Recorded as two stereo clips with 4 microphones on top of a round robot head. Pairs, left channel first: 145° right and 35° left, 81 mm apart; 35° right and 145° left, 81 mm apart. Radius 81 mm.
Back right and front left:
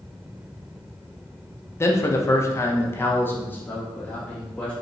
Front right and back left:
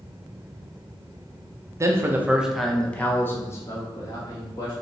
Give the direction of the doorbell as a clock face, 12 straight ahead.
I don't hear a doorbell.